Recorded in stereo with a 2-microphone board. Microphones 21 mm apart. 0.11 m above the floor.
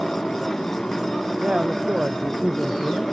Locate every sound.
0.0 s a motorcycle: 30° left (ahead or behind)
1.4 s a man speaking: 50° right (ahead or behind)